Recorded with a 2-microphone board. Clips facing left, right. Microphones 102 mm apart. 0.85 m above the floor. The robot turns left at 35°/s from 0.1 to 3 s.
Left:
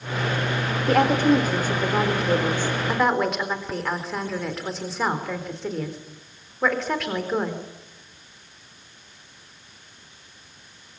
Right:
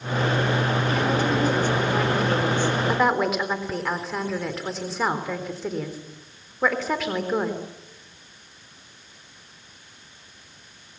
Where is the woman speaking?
70° left, 3.5 m; by 7.6 s straight ahead, 3.5 m.